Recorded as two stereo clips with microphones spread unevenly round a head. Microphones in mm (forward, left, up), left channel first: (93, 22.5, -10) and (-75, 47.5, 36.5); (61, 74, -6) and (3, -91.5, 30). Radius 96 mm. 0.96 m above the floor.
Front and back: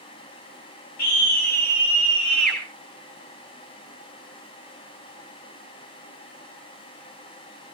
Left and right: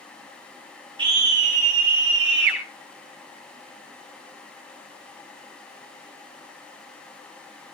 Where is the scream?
45° right, 3 m; by 2.6 s 95° right, 3 m.